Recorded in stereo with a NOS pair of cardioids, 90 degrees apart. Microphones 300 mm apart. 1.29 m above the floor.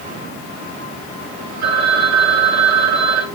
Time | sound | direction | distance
1.6 | a phone ringing | 65° right | 4.5 m